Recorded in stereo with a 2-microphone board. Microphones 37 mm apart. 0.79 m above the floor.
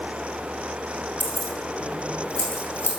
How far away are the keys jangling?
About 2 m.